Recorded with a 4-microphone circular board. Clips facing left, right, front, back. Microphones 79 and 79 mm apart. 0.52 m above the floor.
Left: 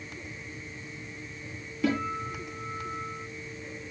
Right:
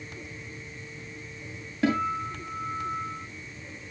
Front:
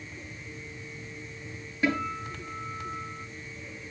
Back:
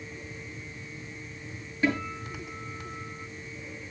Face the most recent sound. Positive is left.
turn(degrees=-80)